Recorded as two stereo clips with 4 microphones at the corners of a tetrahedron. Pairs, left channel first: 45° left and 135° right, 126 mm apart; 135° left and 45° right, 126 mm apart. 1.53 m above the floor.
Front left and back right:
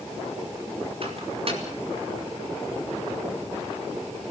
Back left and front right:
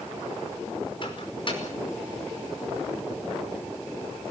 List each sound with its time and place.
1.0 s a microwave: 175° right, 5 m